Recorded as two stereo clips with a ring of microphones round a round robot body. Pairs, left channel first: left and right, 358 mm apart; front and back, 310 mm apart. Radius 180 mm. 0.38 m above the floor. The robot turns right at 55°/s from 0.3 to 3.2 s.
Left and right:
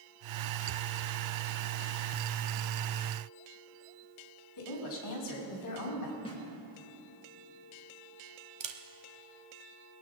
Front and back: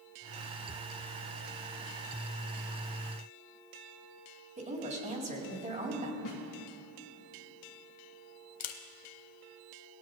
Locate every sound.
4.6 s a woman speaking: 115° left, 3.5 m
6.2 s a snare drum: 15° left, 3 m
8.6 s a camera shutter: 20° right, 0.9 m